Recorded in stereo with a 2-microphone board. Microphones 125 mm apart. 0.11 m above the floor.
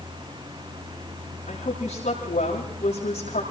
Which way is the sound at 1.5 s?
80° left.